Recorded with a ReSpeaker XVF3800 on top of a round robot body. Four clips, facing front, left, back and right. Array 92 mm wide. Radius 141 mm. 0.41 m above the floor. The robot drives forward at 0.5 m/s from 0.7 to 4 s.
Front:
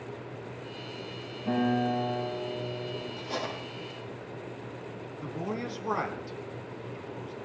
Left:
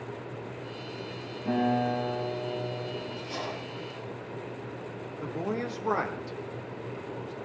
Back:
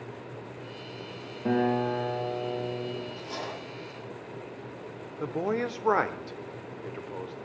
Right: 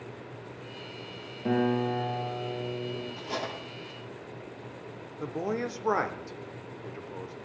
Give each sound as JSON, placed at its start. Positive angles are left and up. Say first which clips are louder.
{"t": 1.4, "sound": "a guitar", "louder": "even, back 1 dB", "azimuth_deg": -145, "distance_m": 6.5}
{"t": 3.2, "sound": "cutlery clinking", "louder": "even, front 2 dB", "azimuth_deg": -90, "distance_m": 7.5}
{"t": 5.2, "sound": "a man speaking", "louder": "right 1 dB, back 6 dB", "azimuth_deg": -165, "distance_m": 1.7}